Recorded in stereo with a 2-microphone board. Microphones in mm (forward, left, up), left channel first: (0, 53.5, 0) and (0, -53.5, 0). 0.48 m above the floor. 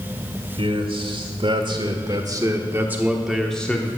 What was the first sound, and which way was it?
A man speaking, 60° right (ahead or behind).